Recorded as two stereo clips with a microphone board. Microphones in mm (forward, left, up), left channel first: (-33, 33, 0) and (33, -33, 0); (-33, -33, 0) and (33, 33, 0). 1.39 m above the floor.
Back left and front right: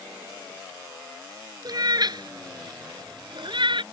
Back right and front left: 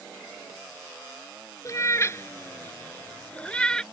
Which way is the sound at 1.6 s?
85° right.